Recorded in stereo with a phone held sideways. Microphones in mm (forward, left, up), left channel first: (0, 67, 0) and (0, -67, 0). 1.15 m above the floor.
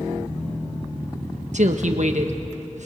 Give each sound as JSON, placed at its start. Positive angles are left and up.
{"t": 1.5, "sound": "a woman speaking", "side_deg": -65, "distance_m": 1.4}